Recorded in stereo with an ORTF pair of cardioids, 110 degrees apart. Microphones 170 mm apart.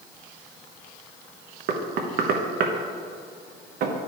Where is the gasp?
No gasp in this recording.